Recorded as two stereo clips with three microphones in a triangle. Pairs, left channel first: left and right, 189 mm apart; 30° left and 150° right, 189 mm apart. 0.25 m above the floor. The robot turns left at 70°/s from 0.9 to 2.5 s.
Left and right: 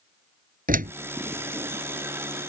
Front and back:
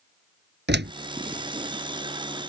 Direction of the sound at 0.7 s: 130° right.